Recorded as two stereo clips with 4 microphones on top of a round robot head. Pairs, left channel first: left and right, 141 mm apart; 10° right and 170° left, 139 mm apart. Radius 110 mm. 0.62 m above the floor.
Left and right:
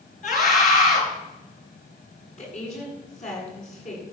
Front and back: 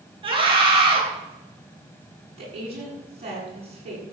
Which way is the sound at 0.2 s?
120° left.